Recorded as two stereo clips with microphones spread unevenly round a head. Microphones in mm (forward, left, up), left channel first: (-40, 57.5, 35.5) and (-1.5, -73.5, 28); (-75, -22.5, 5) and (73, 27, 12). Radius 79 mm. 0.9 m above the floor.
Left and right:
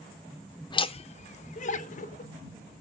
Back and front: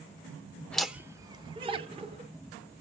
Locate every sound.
0.7 s laughter: 130° left, 0.5 m; by 2.3 s 70° left, 1.5 m